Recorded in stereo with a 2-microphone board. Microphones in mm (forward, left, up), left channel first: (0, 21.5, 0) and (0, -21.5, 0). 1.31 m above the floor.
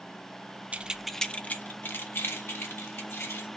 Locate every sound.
0.7 s keys jangling: 30° right (ahead or behind), 0.6 m; by 3.5 s 75° left (ahead or behind), 2.5 m